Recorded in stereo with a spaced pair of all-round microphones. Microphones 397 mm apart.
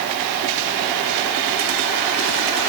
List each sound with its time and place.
Only background noise.